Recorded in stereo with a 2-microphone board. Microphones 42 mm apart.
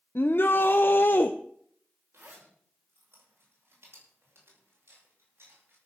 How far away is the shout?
About 0.8 m.